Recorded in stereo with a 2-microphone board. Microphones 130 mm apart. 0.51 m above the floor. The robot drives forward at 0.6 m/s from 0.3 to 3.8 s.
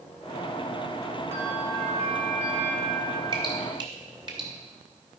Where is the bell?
55° right (ahead or behind), 3 m; by 3.2 s 65° right (ahead or behind), 3 m.